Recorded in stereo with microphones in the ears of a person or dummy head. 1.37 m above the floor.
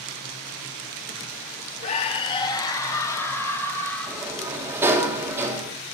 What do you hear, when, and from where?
1.8 s a scream: 40° left (ahead or behind), 1.3 m; by 4.3 s 10° left (ahead or behind), 3.5 m
4.1 s a sliding door: 15° right (ahead or behind), 2.5 m